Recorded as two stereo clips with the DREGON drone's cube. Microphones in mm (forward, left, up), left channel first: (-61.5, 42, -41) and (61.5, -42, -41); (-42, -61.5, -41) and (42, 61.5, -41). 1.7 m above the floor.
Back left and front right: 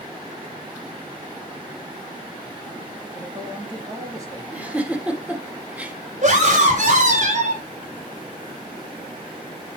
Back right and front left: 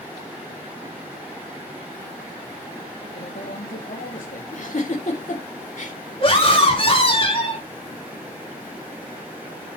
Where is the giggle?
115° right, 2.0 m.